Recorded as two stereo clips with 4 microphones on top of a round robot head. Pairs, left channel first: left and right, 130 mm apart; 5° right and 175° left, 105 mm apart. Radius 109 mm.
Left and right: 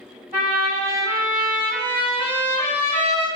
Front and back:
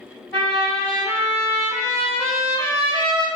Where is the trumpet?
60° right, 1.2 m.